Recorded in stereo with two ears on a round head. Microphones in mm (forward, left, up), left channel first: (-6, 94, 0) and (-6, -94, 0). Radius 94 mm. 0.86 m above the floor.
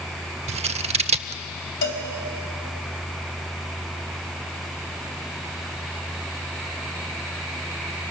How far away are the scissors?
About 0.7 m.